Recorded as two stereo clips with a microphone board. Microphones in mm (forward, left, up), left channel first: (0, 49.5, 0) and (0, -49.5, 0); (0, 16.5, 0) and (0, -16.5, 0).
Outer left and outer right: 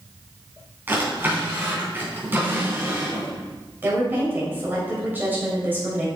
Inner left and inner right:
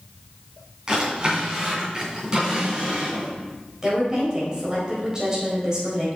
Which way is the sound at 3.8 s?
20° right (ahead or behind).